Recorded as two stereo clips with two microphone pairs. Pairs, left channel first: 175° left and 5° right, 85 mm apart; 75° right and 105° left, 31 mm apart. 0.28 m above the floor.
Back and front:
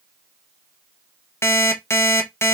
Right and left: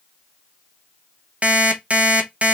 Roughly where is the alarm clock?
Behind left.